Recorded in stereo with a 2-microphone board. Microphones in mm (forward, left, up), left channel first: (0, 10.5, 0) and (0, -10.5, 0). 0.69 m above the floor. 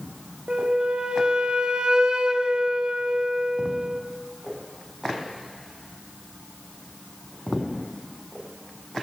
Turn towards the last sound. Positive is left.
turn(degrees=-50)  # may be behind; listen again after turning